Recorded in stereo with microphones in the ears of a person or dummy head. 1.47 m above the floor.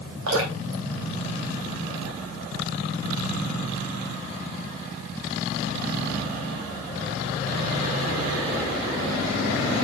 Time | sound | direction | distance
0.3 | dripping | 85° right | 3 m